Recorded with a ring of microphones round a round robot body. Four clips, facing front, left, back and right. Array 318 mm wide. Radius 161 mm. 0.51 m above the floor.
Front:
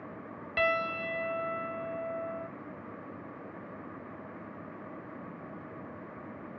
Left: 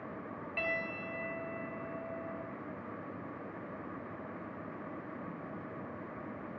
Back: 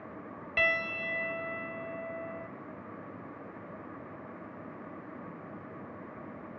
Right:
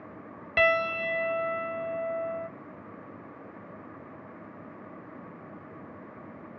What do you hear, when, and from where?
0.6 s a piano: 85° right, 0.8 m